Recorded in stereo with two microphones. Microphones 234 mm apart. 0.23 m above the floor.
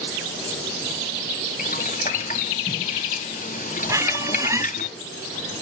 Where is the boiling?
35° left (ahead or behind), 1.1 m.